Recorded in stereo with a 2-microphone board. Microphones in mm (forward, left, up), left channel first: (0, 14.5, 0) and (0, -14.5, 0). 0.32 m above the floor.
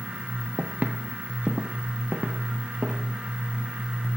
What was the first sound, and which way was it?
Footsteps, 65° right (ahead or behind).